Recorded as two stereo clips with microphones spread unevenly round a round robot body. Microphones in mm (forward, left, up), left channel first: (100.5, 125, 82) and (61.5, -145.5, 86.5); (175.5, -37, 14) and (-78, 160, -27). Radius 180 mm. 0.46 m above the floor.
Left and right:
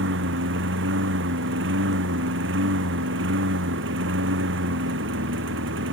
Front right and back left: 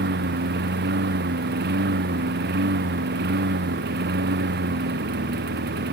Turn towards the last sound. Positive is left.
turn(degrees=-155)